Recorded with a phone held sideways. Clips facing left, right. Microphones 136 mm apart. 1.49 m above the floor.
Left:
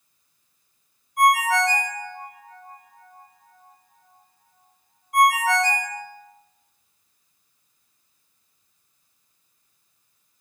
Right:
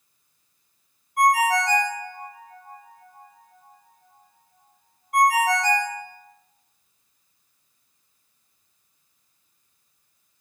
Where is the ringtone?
60° right (ahead or behind), 1.2 m.